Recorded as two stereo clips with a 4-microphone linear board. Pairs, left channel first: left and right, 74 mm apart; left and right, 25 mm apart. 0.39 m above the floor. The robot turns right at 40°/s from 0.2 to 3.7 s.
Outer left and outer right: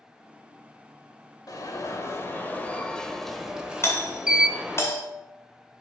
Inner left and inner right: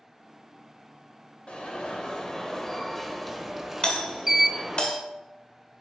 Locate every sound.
1.5 s an alarm: 105° left, 1.0 m; by 4.8 s 165° right, 1.0 m
3.8 s a doorbell: 35° left (ahead or behind), 1.7 m